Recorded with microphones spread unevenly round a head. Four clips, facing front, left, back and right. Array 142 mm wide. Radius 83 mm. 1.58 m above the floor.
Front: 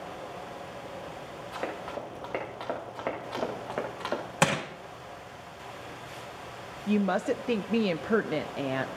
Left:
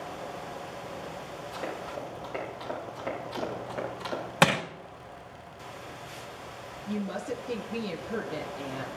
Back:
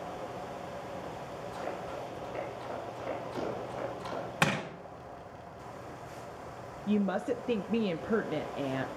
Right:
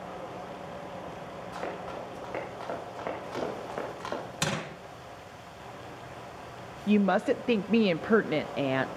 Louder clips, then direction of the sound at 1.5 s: Even, front 4 dB; 10° right.